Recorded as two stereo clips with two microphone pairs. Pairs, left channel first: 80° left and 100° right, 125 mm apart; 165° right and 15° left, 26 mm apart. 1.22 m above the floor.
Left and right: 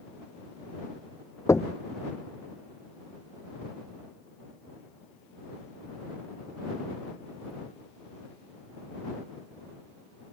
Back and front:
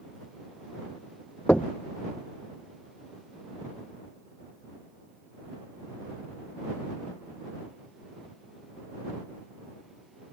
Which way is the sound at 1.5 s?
150° left.